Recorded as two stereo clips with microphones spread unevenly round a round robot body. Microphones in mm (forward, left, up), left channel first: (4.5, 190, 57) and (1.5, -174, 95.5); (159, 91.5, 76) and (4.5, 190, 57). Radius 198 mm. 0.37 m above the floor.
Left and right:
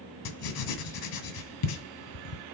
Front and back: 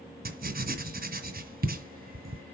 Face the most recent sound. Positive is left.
turn(degrees=115)